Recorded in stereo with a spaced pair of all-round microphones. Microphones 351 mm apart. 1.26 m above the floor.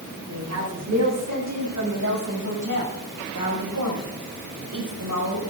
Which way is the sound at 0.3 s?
50° right (ahead or behind).